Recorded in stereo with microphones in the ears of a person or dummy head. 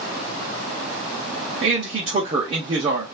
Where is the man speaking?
40° right (ahead or behind), 0.7 m.